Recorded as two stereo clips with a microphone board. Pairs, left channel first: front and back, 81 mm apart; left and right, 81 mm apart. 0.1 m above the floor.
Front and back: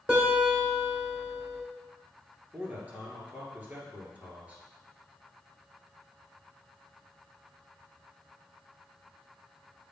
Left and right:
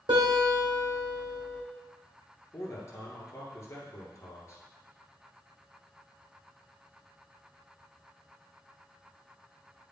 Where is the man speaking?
120° left, 2 m.